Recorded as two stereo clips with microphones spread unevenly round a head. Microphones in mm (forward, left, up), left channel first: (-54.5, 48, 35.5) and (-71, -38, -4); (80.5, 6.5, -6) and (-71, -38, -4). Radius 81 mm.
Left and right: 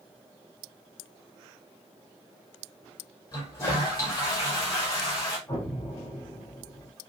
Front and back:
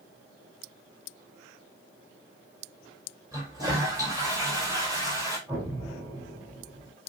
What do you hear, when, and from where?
3.3 s a toilet flushing: 125° left, 5 m
5.5 s an explosion: 125° left, 4 m